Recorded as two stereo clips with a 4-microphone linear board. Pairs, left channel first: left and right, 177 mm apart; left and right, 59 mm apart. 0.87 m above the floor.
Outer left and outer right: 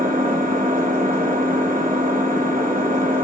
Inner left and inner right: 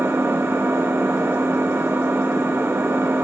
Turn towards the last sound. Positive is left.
turn(degrees=-55)  # may be behind; listen again after turning